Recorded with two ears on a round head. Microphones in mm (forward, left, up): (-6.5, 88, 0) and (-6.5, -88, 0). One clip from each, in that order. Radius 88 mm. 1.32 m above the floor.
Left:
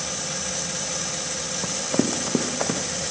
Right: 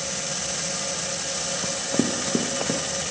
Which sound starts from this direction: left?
Running footsteps, at 1.6 s.